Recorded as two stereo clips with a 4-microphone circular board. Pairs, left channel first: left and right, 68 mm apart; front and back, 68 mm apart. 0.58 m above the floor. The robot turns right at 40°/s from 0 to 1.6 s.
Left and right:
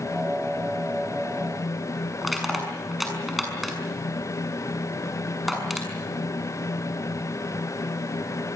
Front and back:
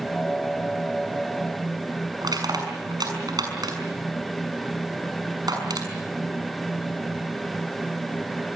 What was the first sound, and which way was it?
Crushing, 175° right.